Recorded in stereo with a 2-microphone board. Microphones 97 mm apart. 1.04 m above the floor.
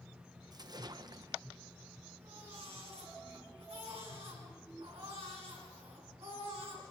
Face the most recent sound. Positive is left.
turn(degrees=-85)